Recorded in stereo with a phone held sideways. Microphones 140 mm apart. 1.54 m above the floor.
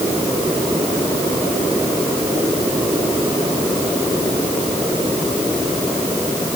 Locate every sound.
Only background noise.